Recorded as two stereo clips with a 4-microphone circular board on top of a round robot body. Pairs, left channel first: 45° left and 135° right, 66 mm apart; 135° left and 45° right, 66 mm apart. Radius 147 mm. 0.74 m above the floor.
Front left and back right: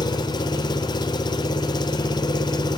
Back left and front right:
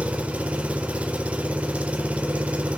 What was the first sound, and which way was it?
An engine running, 30° left.